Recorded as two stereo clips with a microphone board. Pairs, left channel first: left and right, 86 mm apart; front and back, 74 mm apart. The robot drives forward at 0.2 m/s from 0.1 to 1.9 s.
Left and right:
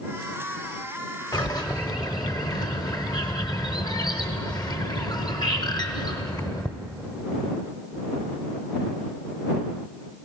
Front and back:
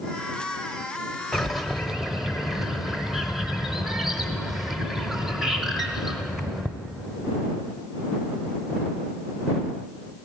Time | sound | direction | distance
1.3 | a bird | 85° left | 0.7 m